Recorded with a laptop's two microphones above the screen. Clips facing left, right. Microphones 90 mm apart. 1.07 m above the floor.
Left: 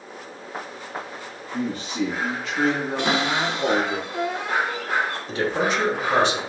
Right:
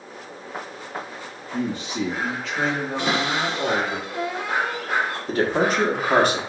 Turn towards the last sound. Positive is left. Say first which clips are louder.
# right 4 dB
turn(degrees=-45)  # may be behind; listen again after turning